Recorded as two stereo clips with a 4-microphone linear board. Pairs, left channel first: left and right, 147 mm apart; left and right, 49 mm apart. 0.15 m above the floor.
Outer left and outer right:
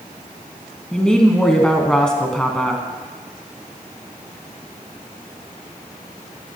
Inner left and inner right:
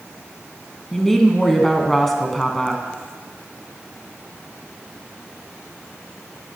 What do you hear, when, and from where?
0.9 s a woman speaking: 5° left (ahead or behind), 1.1 m